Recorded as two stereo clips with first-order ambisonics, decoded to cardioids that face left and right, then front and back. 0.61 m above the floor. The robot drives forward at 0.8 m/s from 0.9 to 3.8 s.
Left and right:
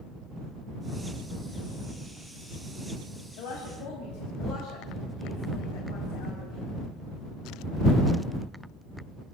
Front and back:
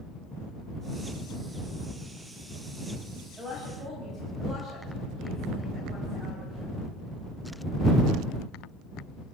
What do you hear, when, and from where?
3.4 s a woman speaking: 105° left, 4.5 m; by 6.7 s 110° left, 4.5 m